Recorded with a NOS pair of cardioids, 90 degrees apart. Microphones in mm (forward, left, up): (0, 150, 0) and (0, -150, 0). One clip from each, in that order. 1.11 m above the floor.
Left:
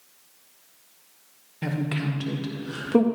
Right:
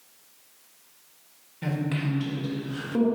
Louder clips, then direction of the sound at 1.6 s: Left 1 dB; 25° left.